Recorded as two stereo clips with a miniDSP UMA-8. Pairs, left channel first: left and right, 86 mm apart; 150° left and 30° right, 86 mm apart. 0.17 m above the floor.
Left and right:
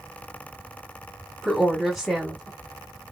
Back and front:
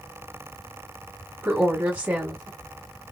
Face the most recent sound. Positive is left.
turn(degrees=5)